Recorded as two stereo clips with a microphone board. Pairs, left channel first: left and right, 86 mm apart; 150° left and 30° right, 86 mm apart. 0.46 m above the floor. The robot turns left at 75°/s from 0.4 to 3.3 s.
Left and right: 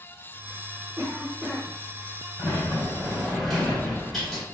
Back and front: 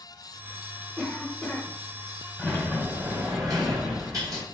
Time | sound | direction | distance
1.0 | a cough | 120° right | 0.9 m
2.4 | a sliding door | 70° left | 1.9 m